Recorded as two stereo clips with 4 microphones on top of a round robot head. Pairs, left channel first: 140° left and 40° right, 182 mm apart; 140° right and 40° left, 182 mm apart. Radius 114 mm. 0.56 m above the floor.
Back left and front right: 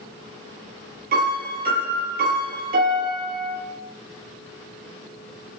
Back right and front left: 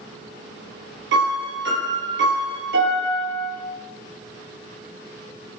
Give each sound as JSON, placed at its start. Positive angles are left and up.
{"t": 1.1, "sound": "a piano", "azimuth_deg": 5, "distance_m": 5.5}